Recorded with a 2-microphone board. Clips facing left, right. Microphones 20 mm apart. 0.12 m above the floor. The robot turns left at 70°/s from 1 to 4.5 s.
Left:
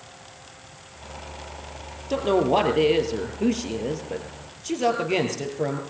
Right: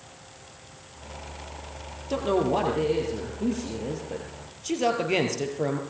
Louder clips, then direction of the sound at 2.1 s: Left 4 dB; 170° left.